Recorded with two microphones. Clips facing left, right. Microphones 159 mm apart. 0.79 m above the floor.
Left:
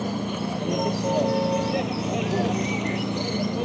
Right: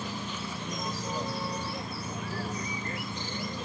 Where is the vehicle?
50° left (ahead or behind); by 3.7 s 65° left (ahead or behind).